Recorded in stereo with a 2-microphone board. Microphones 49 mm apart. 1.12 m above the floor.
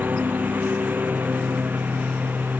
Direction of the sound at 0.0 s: 40° right (ahead or behind).